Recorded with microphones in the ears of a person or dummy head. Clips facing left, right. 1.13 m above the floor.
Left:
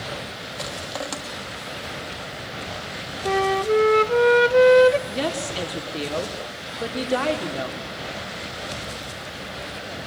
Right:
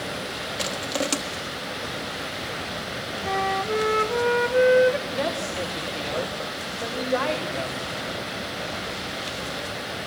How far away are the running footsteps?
I don't hear running footsteps.